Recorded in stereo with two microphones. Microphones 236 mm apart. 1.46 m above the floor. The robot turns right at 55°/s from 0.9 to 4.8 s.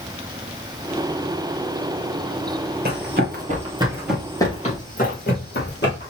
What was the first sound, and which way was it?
Running footsteps, 45° right (ahead or behind).